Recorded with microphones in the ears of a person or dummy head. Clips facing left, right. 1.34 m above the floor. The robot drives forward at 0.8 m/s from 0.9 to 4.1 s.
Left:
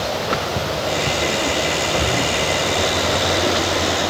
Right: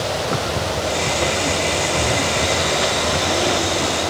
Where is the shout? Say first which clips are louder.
Even; 5° left (ahead or behind), 8 m.